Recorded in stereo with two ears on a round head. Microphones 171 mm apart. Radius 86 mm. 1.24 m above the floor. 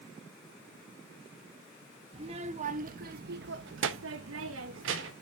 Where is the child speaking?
30° right (ahead or behind), 1.3 m; by 5.1 s 65° right (ahead or behind), 1.3 m.